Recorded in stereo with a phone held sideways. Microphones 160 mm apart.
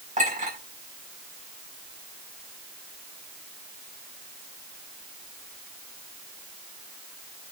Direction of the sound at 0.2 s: 50° right (ahead or behind).